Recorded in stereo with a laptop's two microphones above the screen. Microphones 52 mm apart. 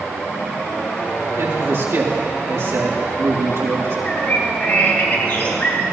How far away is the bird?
About 2.5 m.